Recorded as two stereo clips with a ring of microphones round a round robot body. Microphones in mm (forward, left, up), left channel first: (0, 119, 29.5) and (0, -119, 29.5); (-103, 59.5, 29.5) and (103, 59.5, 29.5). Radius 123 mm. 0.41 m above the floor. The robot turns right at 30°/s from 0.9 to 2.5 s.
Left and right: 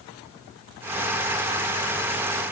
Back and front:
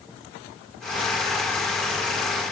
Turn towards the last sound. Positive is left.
No sound to turn to.